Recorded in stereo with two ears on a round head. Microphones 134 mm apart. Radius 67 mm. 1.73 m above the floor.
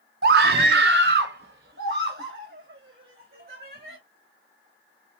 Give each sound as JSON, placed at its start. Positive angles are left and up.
{"t": 0.2, "sound": "a scream", "side_deg": -70, "distance_m": 0.6}